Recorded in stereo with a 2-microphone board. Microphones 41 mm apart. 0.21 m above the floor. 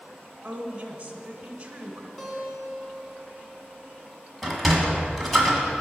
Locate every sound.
0.4 s a woman speaking: 25° right (ahead or behind), 1.3 m
2.2 s a guitar: 10° left (ahead or behind), 2.5 m
4.4 s a sliding door: 5° left (ahead or behind), 1.6 m